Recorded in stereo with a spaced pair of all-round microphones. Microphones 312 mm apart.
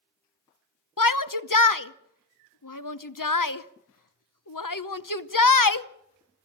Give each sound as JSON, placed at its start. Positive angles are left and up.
{"t": 1.0, "sound": "a shout", "side_deg": 90, "distance_m": 0.8}